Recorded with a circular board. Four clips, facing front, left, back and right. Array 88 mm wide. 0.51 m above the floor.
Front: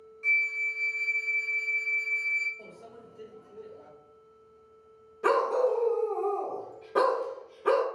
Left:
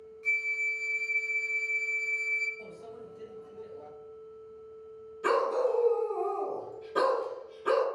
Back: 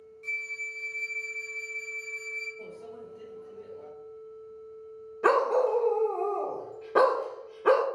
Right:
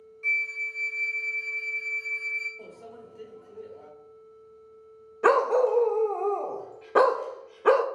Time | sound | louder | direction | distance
0.2 | a flute | right 2 dB, front 8 dB | 50° right | 0.9 m
2.6 | a microwave | even, back 5 dB | 95° right | 1.1 m
5.2 | a dog barking | right 6 dB, back 1 dB | 105° right | 0.5 m